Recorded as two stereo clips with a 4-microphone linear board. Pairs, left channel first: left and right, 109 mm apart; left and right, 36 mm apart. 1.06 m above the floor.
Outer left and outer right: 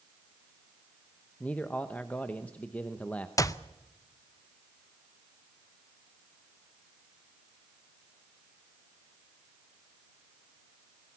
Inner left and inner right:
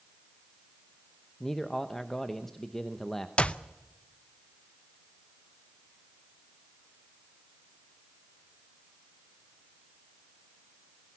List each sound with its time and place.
1.4 s a man speaking: 15° left (ahead or behind), 0.9 m
3.4 s a clap: 35° left (ahead or behind), 0.6 m